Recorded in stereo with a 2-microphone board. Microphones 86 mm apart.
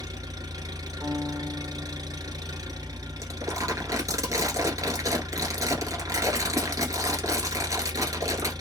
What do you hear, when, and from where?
0.0 s an engine running: 45° right (ahead or behind), 1.2 m
1.0 s a piano: 50° right (ahead or behind), 1.7 m
3.2 s crumpling: 40° right (ahead or behind), 1.3 m